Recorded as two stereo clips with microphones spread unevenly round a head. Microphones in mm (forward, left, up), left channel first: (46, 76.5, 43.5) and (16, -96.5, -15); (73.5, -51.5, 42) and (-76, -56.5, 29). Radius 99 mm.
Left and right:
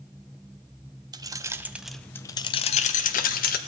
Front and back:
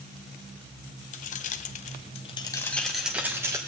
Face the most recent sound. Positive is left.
turn(degrees=105)